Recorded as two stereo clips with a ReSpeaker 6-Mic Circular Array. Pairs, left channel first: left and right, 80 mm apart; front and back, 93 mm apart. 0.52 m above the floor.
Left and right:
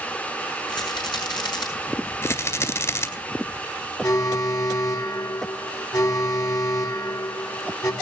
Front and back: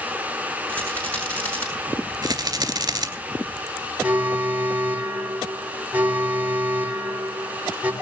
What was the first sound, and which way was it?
A rattle, 75° left.